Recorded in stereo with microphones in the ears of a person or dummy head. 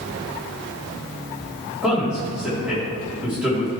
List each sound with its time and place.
1.8 s a man speaking: 5° right (ahead or behind), 3.5 m